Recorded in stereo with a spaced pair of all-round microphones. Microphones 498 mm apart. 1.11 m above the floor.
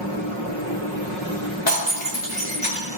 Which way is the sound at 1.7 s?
55° left (ahead or behind).